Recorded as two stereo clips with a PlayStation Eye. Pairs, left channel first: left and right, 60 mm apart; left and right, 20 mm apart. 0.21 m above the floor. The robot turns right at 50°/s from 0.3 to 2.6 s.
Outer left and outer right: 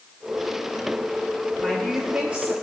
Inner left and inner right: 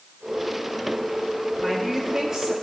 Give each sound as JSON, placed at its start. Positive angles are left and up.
{"t": 1.6, "sound": "a woman speaking", "azimuth_deg": 165, "distance_m": 4.0}